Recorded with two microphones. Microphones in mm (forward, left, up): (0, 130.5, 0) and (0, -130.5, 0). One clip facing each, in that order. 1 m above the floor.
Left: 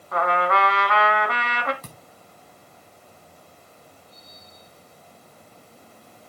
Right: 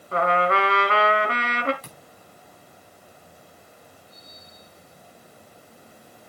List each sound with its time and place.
0.1 s a trumpet: 35° right (ahead or behind), 2 m
1.8 s a thud: 55° left (ahead or behind), 4.5 m